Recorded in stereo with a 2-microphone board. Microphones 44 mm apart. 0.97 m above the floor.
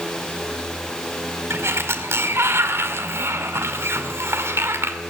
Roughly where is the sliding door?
Right.